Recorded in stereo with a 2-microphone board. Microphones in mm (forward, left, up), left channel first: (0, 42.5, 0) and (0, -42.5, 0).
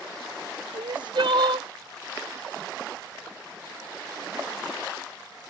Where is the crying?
65° right (ahead or behind).